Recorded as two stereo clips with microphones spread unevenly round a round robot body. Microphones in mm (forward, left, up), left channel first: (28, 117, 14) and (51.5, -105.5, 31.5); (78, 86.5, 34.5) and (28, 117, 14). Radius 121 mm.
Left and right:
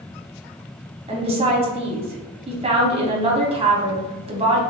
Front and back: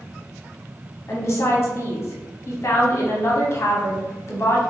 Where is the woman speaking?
40° right, 1.0 m.